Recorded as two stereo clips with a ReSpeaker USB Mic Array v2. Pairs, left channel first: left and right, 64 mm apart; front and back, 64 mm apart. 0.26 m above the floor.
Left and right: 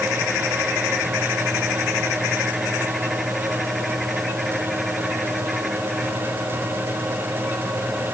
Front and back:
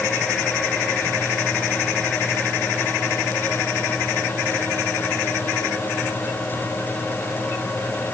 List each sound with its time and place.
Only background noise.